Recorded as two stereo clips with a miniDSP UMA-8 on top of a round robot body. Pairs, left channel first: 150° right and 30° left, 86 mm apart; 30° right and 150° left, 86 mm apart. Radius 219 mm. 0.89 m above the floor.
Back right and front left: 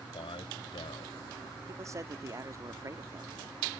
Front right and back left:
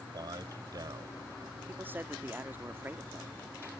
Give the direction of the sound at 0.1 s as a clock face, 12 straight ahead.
6 o'clock.